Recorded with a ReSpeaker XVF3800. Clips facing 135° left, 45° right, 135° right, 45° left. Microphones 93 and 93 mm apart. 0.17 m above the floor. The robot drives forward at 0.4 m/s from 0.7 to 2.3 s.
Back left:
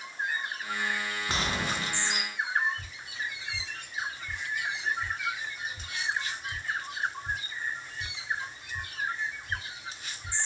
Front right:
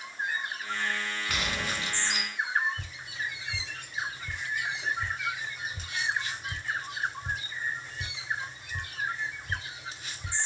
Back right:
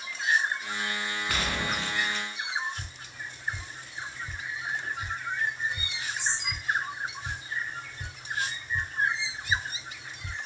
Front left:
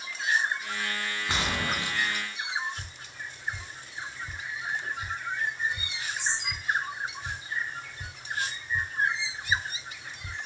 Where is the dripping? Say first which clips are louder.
Front right 1 dB, even; 45° right, 3.5 m.